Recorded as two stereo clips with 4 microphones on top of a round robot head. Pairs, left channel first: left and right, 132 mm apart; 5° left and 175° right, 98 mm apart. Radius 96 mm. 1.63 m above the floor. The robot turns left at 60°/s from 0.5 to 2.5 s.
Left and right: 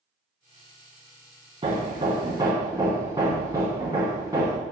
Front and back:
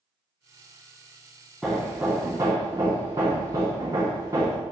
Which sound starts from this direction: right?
Hammering, at 1.6 s.